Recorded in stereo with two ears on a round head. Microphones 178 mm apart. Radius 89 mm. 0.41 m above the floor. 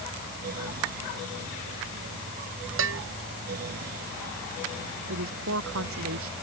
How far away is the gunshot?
No gunshot in this recording.